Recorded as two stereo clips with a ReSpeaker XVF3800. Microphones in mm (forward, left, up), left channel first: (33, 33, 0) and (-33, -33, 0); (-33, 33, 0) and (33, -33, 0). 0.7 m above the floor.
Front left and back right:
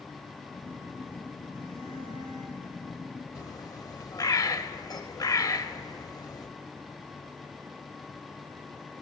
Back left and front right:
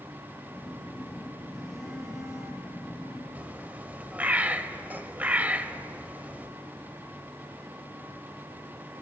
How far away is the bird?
About 0.5 m.